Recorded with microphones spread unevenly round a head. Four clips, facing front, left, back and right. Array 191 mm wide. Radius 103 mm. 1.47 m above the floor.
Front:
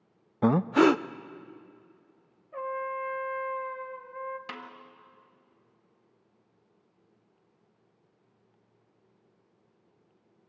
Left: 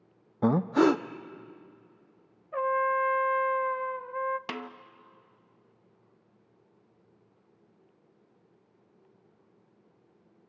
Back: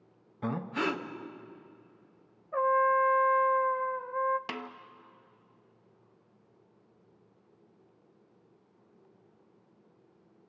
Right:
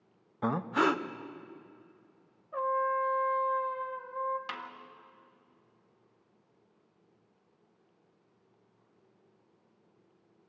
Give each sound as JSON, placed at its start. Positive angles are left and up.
{"t": 0.4, "sound": "breathing", "azimuth_deg": 40, "distance_m": 0.6}
{"t": 2.5, "sound": "a trumpet", "azimuth_deg": 155, "distance_m": 0.6}
{"t": 4.5, "sound": "a snare drum", "azimuth_deg": 115, "distance_m": 1.1}